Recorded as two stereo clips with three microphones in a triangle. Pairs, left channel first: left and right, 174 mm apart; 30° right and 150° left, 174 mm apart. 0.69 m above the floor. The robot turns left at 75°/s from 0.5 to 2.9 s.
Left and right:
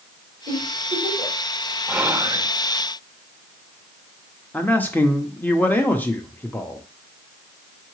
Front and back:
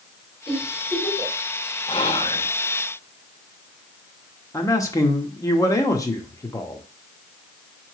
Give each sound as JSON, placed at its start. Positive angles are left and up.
{"t": 0.5, "sound": "a giggle", "azimuth_deg": -95, "distance_m": 3.0}
{"t": 1.9, "sound": "whispering", "azimuth_deg": -10, "distance_m": 0.6}
{"t": 4.5, "sound": "a man speaking", "azimuth_deg": 20, "distance_m": 0.7}